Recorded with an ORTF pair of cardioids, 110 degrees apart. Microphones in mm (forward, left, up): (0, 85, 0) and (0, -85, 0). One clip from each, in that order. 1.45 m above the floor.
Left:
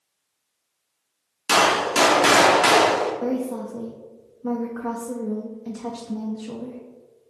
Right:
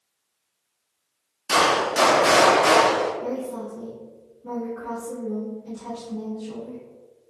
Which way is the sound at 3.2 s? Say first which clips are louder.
Left 3 dB; 55° left.